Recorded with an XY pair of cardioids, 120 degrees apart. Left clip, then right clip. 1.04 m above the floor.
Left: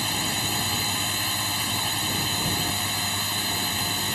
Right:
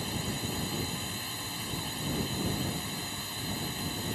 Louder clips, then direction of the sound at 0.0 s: Left 10 dB; 60° left.